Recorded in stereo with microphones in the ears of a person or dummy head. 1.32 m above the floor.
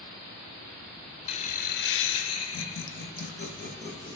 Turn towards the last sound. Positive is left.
turn(degrees=40)  # may be behind; listen again after turning